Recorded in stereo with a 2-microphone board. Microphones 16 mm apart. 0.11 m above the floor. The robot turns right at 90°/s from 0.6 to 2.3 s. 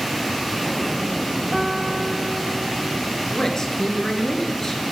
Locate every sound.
1.5 s a piano: 150° right, 1.9 m; by 3.1 s 80° right, 1.9 m
3.3 s a man speaking: 35° left (ahead or behind), 1.7 m